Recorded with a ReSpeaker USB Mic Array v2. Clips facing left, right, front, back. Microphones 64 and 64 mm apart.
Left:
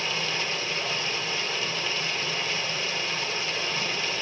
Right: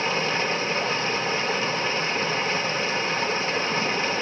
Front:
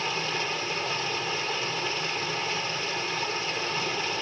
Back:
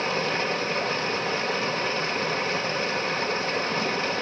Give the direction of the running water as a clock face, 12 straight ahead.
5 o'clock.